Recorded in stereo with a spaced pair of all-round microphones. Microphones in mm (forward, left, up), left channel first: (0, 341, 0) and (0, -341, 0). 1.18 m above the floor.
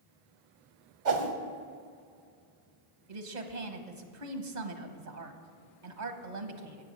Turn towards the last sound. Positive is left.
turn(degrees=-75)  # may be behind; listen again after turning